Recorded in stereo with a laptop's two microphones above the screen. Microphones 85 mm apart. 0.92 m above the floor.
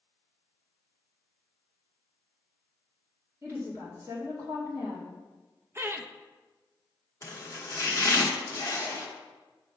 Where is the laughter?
30° right (ahead or behind), 0.6 m.